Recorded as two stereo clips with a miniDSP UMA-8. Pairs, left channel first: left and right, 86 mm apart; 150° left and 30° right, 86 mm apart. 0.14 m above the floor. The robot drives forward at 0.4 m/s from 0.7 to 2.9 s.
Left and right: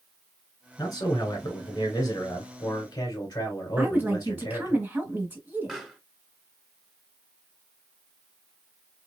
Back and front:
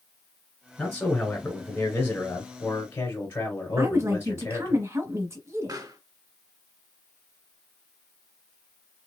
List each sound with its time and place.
0.8 s a man speaking: 70° left, 2 m; by 4.8 s 100° left, 2 m
3.8 s a woman speaking: 45° right, 1.6 m
5.7 s a pop: straight ahead, 1.6 m